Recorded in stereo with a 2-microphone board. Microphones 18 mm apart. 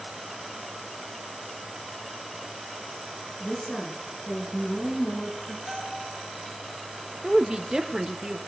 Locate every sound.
3.4 s a woman speaking: 75° left (ahead or behind), 5 m
5.7 s a bell: 10° right (ahead or behind), 7.5 m
7.2 s a woman speaking: 35° right (ahead or behind), 1.1 m